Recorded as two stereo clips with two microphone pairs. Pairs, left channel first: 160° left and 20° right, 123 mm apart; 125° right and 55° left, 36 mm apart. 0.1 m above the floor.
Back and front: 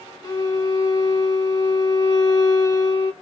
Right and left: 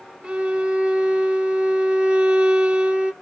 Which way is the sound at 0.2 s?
105° left.